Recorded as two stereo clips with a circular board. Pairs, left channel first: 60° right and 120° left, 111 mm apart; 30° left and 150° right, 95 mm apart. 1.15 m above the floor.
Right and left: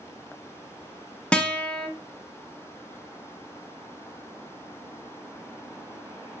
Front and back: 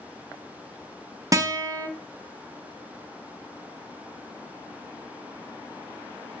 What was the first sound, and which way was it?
A guitar, 135° right.